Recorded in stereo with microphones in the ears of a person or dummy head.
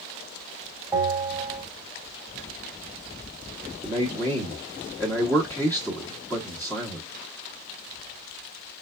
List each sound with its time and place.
0.9 s a bell: 10° right (ahead or behind), 3 m
3.8 s a man speaking: 5° left (ahead or behind), 1.0 m